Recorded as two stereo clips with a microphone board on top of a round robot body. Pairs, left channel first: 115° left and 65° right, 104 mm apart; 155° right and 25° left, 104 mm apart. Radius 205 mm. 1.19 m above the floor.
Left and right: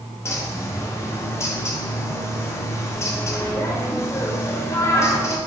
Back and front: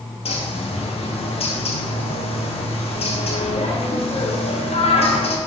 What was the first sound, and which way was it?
A bird, straight behind.